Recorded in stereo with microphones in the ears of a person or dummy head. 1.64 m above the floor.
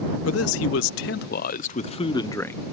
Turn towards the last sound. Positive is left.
turn(degrees=10)  # may be behind; listen again after turning